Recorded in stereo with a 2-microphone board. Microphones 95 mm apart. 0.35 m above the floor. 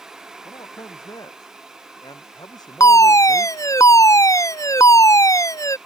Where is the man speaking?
45° left (ahead or behind).